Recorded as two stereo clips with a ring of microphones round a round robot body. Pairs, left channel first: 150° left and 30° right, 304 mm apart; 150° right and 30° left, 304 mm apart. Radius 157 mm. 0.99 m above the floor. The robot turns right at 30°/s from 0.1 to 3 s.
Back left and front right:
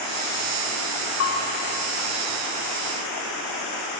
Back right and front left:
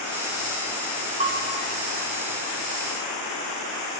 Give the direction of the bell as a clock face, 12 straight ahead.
9 o'clock.